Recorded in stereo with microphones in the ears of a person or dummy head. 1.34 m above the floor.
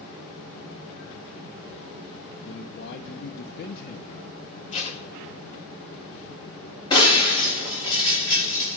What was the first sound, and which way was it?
A man speaking, 55° left (ahead or behind).